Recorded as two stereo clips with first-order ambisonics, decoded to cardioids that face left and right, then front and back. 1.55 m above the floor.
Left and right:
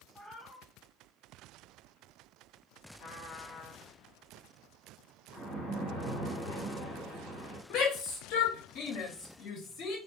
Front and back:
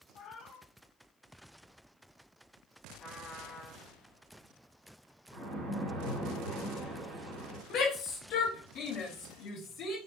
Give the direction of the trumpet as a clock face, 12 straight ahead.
10 o'clock.